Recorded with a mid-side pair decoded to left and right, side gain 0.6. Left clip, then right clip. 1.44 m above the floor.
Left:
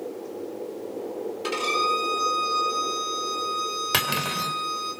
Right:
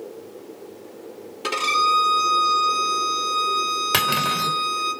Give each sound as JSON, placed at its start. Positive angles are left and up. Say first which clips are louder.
{"t": 1.4, "sound": "a violin", "louder": "right 5 dB", "azimuth_deg": -25, "distance_m": 4.5}
{"t": 3.9, "sound": "cutlery clinking", "louder": "right 4 dB", "azimuth_deg": -10, "distance_m": 3.5}